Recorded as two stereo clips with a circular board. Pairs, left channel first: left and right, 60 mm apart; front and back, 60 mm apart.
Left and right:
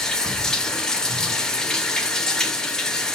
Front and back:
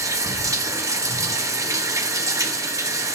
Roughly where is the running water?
Behind.